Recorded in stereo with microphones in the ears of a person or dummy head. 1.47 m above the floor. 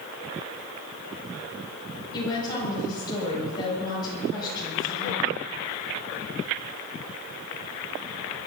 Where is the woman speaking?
30° left (ahead or behind), 7.5 m.